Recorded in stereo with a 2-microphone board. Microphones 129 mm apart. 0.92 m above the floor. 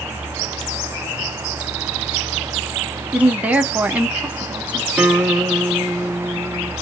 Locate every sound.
3.1 s a woman speaking: 10° right (ahead or behind), 0.6 m
5.0 s a guitar: 10° right (ahead or behind), 1.0 m